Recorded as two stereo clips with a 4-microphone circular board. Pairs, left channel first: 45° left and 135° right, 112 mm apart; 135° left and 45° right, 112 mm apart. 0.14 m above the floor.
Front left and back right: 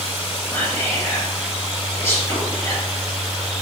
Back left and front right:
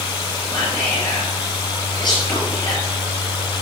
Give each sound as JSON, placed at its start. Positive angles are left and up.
{"t": 0.5, "sound": "whispering", "azimuth_deg": 105, "distance_m": 2.0}